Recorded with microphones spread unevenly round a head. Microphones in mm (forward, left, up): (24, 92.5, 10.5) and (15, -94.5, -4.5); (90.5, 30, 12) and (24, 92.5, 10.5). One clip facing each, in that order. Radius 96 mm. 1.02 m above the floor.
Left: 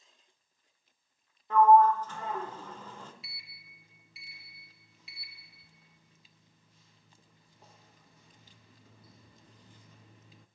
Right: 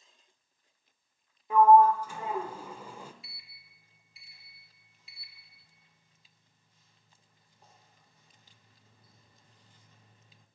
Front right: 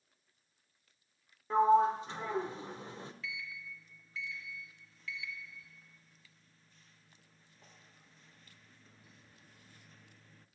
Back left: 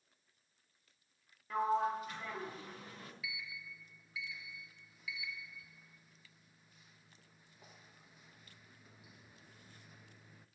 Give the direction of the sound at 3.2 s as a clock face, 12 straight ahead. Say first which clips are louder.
Left 3 dB, front right 3 dB; 10 o'clock.